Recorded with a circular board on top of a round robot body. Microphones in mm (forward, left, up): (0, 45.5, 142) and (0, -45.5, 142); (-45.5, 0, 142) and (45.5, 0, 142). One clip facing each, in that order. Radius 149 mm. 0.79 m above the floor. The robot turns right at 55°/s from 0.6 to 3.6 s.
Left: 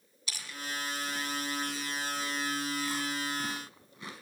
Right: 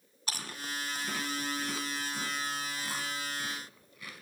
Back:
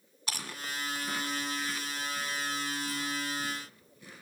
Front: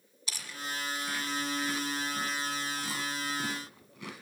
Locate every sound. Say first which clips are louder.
0.3 s chewing: right 1 dB, back 1 dB; 140° right, 1.4 m; by 4.2 s 25° left, 1.4 m